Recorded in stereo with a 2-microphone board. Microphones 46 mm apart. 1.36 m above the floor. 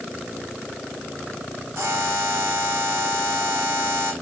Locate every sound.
1.8 s a buzzer: 70° right (ahead or behind), 6.5 m